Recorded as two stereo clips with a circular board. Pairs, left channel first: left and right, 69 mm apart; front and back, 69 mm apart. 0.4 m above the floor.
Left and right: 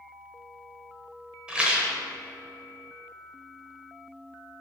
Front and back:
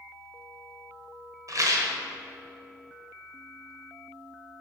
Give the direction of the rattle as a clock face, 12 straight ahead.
5 o'clock.